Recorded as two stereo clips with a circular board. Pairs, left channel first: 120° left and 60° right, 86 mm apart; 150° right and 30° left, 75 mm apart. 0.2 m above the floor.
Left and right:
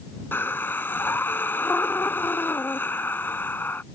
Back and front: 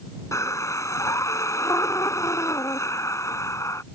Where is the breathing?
Straight behind.